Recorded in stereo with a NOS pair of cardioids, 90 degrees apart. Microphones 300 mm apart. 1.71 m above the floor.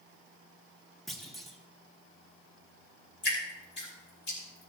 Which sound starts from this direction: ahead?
A clunk, at 1.1 s.